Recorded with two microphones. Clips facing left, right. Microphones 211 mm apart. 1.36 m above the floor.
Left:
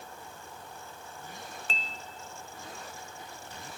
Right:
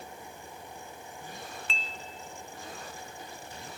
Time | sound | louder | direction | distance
1.7 | dishes clattering | even | 40° left (ahead or behind) | 1.0 m